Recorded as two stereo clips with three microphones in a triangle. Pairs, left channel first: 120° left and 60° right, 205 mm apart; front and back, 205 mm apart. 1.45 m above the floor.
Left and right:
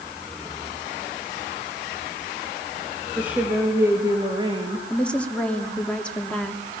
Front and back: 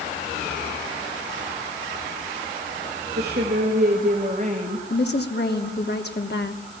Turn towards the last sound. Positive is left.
turn(degrees=35)